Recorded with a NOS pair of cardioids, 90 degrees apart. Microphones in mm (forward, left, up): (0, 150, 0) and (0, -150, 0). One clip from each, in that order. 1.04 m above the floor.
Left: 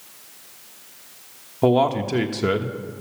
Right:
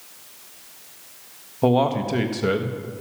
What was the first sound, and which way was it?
A man speaking, 15° left.